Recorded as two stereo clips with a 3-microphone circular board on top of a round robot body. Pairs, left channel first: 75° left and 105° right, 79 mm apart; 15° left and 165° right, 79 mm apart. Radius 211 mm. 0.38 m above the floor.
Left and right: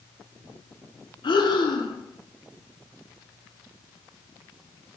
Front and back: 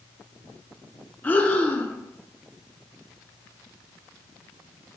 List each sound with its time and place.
1.2 s breathing: 85° left, 0.6 m